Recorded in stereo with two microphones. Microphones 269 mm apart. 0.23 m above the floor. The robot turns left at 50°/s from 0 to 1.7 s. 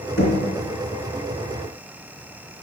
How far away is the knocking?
About 2.5 m.